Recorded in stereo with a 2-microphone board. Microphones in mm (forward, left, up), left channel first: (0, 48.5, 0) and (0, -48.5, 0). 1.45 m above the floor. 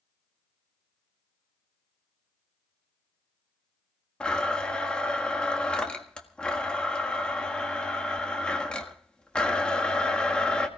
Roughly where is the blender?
Centre.